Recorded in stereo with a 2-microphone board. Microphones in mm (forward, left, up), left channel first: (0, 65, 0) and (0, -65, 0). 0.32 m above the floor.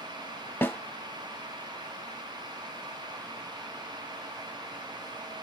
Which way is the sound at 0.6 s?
15° left (ahead or behind).